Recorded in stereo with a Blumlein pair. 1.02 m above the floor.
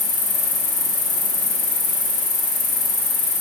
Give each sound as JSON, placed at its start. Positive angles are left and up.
{"t": 0.0, "sound": "an insect", "azimuth_deg": 45, "distance_m": 2.5}